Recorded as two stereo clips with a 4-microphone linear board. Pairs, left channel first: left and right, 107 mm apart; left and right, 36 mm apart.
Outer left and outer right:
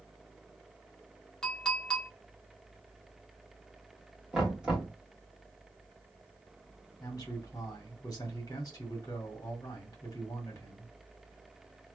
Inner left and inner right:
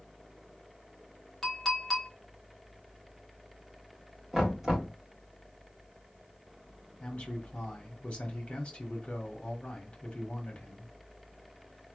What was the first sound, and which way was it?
A clink, 5° left (ahead or behind).